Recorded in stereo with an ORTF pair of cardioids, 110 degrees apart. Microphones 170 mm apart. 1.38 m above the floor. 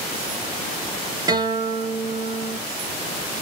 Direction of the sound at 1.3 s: 20° right.